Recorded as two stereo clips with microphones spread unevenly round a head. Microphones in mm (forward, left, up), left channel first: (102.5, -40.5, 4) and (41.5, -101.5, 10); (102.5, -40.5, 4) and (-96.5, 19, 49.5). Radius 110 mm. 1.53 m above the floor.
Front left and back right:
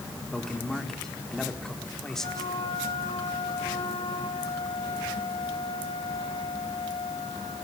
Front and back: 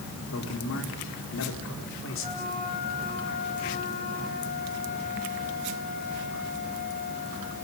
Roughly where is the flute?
Ahead left.